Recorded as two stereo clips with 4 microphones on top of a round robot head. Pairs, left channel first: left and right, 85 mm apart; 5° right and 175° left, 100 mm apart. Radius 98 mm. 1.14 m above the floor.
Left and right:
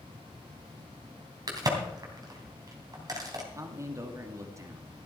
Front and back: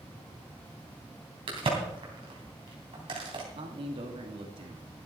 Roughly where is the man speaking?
Behind right.